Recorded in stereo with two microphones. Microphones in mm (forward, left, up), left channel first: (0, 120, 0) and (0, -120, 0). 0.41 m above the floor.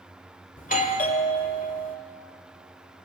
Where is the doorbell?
35° left (ahead or behind), 1.9 m.